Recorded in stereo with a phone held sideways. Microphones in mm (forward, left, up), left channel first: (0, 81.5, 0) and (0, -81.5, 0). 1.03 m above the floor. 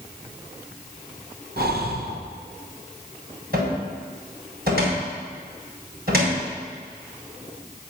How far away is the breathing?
About 1.0 m.